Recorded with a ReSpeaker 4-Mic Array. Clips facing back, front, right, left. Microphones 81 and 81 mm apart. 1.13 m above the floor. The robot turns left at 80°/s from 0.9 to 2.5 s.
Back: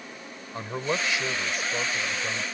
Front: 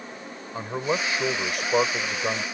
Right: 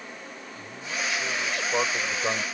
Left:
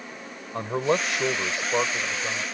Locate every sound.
0.5 s a man speaking: 80° left; by 2.4 s 45° right